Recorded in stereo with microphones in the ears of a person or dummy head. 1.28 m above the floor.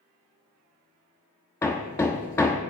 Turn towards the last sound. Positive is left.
turn(degrees=15)  # may be behind; listen again after turning